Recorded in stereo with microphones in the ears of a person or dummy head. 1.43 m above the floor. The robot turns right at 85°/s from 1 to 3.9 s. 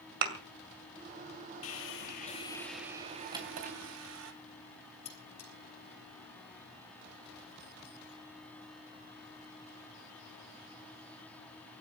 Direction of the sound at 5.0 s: 50° left (ahead or behind).